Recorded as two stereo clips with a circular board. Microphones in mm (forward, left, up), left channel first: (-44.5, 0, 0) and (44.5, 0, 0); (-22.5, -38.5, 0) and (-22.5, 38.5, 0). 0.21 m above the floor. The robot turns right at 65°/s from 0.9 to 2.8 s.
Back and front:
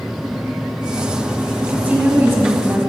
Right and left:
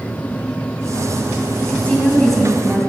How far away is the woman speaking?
About 1.5 m.